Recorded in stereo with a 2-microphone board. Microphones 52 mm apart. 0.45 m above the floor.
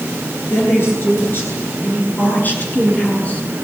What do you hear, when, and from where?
0.5 s a woman speaking: 45° left (ahead or behind), 9 m; by 3.6 s 25° left (ahead or behind), 6 m